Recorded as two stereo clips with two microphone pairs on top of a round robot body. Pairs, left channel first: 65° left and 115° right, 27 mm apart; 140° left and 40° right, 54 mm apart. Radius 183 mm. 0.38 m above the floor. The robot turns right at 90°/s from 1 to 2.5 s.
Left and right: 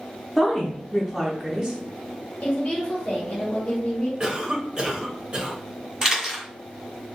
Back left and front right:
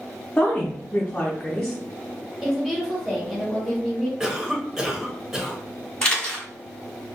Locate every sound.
0.4 s a woman speaking: 145° left, 0.8 m; by 1.8 s 145° right, 0.8 m
2.4 s a woman speaking: 50° left, 1.4 m; by 4.1 s 60° left, 1.4 m
4.2 s a cough: 110° right, 1.1 m
6.0 s a camera shutter: straight behind, 1.7 m